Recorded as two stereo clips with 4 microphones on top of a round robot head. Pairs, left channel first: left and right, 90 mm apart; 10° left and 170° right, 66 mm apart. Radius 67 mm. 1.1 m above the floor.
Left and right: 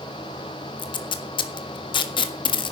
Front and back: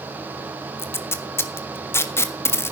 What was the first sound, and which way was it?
Tape being pulled, 60° left.